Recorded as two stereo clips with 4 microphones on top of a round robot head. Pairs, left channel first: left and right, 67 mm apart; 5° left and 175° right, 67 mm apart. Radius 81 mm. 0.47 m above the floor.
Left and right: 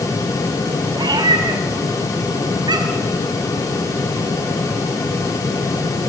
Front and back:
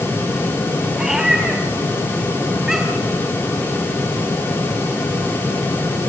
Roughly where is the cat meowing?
Right.